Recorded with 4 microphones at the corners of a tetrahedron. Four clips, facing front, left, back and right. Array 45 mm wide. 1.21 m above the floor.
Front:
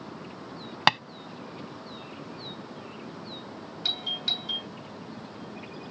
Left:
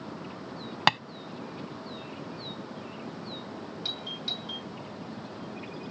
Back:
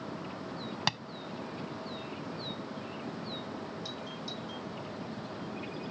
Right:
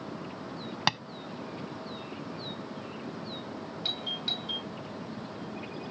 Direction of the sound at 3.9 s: 15° right.